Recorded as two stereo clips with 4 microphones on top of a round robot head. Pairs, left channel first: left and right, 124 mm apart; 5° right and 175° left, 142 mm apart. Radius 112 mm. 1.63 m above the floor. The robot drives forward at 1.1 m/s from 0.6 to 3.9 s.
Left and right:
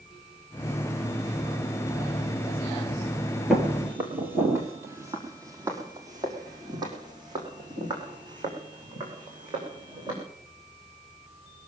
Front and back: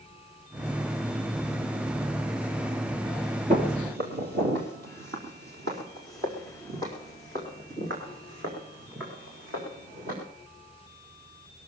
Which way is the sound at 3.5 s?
170° right.